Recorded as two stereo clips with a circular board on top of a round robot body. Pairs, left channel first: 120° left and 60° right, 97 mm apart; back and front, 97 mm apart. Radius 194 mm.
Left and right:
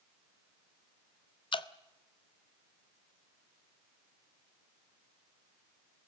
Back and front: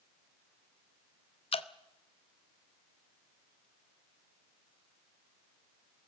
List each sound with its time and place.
1.5 s dripping: 155° left, 0.9 m